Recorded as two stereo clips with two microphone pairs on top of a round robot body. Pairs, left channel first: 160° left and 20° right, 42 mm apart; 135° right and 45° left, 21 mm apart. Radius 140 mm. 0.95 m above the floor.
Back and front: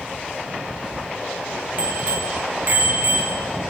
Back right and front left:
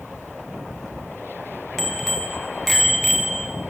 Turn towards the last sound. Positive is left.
turn(degrees=-45)